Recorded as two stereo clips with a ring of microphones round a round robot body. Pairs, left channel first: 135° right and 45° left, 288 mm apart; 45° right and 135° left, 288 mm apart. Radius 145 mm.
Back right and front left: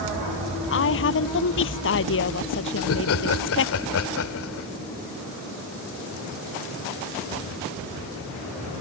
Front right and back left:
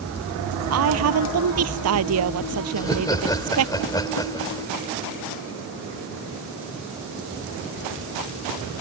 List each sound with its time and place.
0.7 s a woman speaking: 175° left
2.8 s laughter: 120° right